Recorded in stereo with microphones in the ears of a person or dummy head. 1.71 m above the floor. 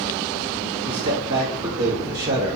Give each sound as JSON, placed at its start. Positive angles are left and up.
{"t": 0.8, "sound": "a man speaking", "side_deg": -55, "distance_m": 0.8}